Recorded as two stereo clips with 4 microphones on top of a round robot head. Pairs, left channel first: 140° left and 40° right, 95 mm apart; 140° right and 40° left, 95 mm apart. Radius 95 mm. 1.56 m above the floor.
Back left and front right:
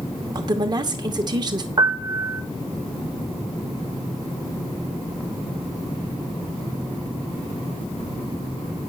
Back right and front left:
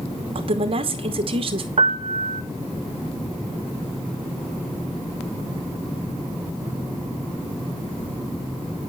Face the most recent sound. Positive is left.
turn(degrees=15)